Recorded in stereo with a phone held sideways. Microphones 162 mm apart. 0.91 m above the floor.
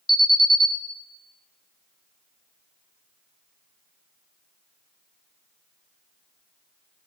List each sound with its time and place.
0.1 s an alarm: 60° left (ahead or behind), 2.5 m